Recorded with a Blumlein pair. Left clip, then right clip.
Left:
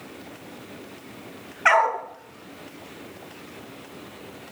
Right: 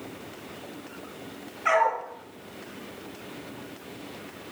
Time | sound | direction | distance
1.6 | a dog barking | 30° left | 4 m